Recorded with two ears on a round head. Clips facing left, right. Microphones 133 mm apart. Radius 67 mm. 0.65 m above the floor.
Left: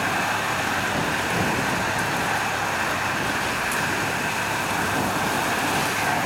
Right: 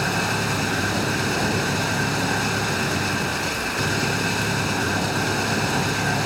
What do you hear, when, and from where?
0.0 s an engine running: 45° right (ahead or behind)